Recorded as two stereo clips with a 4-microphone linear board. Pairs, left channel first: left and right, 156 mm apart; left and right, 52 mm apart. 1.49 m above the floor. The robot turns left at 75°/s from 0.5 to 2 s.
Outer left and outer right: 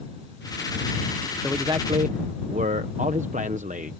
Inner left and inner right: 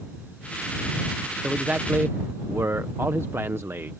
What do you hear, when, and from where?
1.4 s a man speaking: 10° right; by 3.9 s 55° right